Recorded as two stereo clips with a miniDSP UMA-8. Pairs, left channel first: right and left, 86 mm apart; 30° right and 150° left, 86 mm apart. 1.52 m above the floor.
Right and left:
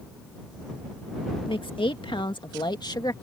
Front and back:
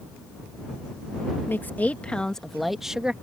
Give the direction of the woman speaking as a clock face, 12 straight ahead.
3 o'clock.